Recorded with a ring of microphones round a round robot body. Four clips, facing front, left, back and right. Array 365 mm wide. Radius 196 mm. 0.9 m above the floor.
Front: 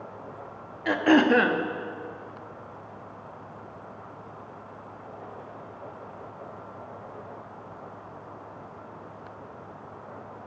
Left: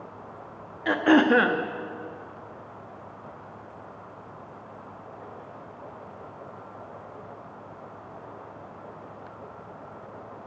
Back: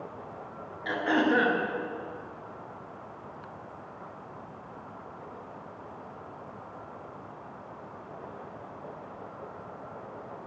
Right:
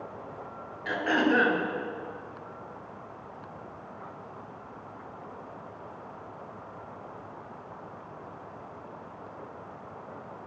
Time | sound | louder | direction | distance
0.8 | throat clearing | left 7 dB, front 6 dB | 50° left | 1.0 m